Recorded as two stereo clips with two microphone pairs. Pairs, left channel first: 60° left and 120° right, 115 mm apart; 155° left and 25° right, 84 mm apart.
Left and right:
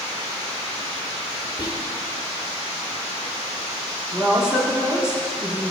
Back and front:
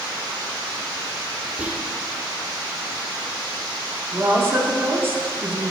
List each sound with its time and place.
1.6 s whispering: 40° left, 0.8 m
4.1 s a woman speaking: 45° right, 0.8 m